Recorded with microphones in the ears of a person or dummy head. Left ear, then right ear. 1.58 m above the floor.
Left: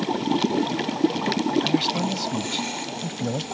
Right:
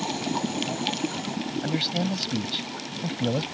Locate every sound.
1.6 s a man speaking: 5° right (ahead or behind)